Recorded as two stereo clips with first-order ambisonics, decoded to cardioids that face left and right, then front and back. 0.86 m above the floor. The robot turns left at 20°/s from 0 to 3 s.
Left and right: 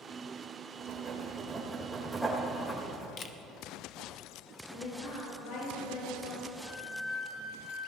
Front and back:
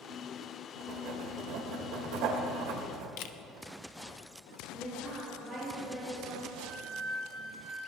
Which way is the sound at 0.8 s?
150° right.